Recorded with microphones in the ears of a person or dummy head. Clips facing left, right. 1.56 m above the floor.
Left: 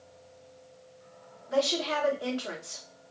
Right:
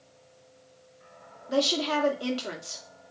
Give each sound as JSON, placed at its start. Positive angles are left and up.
{"t": 1.5, "sound": "a woman speaking", "side_deg": -45, "distance_m": 0.8}